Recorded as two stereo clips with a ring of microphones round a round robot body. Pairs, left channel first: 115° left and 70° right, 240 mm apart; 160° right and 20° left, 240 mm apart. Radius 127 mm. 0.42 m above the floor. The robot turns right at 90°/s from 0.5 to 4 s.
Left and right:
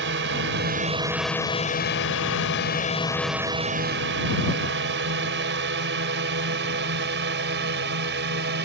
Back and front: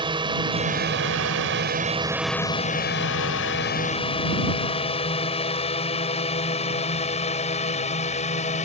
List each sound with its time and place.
0.0 s a drone: 45° right; by 8.7 s 100° right